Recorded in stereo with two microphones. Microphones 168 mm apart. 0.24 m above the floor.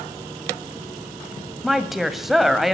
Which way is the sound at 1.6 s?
Centre (ahead or behind).